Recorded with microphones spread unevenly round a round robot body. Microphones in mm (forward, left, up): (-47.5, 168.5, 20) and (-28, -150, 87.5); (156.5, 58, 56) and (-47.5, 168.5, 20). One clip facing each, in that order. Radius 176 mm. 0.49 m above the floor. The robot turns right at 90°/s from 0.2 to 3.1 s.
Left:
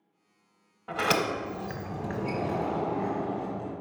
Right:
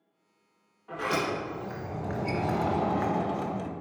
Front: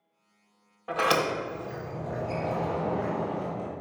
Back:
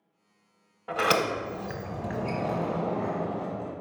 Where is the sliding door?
65° left, 0.9 m; by 3.7 s 100° right, 0.9 m.